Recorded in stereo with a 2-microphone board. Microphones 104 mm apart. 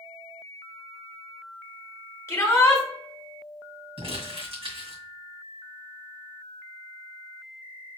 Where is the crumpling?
65° right (ahead or behind), 2 m.